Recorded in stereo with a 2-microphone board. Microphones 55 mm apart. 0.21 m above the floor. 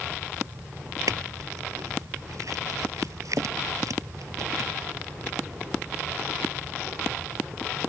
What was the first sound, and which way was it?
A clink, 75° right (ahead or behind).